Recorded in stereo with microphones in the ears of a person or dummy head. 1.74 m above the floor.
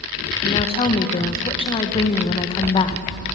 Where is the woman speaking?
30° left (ahead or behind), 2 m.